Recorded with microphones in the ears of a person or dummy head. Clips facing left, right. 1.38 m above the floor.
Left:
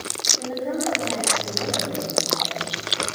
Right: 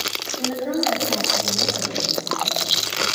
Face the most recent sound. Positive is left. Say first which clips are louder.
# right 3 dB
turn(degrees=-5)  # may be behind; listen again after turning